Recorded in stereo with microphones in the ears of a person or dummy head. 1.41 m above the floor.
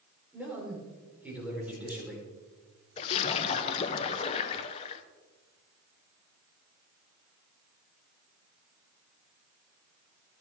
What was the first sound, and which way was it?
A man speaking, 10° right (ahead or behind).